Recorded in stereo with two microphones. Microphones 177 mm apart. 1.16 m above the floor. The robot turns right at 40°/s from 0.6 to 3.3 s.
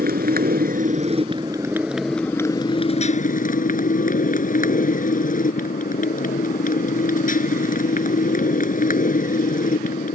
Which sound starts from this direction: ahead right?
A motorcycle, at 0.0 s.